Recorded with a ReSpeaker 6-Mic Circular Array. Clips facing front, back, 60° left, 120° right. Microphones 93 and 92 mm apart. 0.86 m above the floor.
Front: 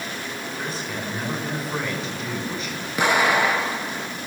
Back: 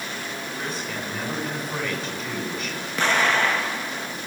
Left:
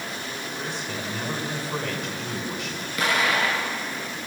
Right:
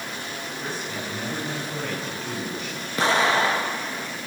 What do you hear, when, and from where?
0.6 s a man speaking: 85° left, 7 m
3.0 s an explosion: 75° right, 1.0 m